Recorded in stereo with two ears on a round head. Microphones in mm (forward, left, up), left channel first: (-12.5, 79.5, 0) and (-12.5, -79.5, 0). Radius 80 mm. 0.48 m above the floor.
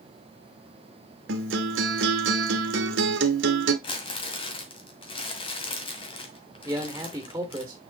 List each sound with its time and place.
1.3 s a guitar: 75° right (ahead or behind), 1.2 m
3.8 s crumpling: 30° left (ahead or behind), 1.8 m
6.7 s a man speaking: 10° right (ahead or behind), 1.2 m